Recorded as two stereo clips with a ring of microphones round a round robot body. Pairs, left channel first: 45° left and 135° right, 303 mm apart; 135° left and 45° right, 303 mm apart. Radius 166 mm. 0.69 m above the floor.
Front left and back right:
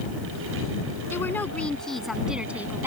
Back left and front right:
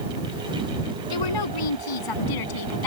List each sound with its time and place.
1.1 s a woman speaking: 130° left; by 2.9 s 140° left